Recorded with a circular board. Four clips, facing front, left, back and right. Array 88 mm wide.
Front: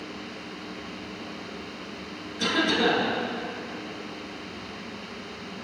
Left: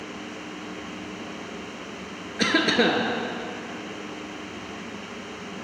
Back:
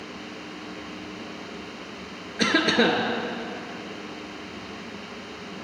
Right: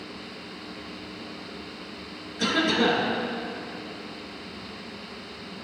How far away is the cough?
About 2 m.